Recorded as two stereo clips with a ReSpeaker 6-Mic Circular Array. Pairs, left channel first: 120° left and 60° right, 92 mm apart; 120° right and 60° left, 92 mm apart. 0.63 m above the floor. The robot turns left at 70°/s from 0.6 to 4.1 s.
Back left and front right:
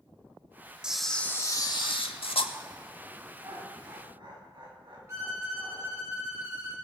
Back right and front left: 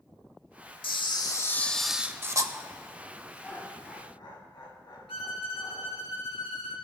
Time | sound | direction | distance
0.8 | a camera shutter | 140° right | 0.7 m
3.4 | laughter | 40° right | 3.5 m
5.1 | a violin | 120° right | 1.9 m